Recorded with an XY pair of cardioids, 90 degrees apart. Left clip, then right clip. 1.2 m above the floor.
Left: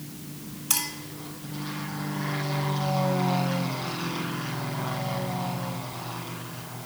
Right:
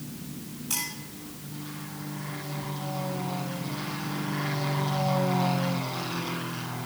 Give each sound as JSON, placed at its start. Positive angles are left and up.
{"t": 0.7, "sound": "a clink", "azimuth_deg": 70, "distance_m": 3.0}